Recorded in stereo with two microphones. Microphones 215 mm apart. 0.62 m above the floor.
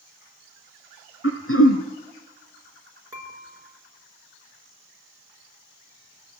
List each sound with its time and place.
1.2 s throat clearing: 85° left, 4.5 m
3.1 s dishes clattering: 15° right (ahead or behind), 6 m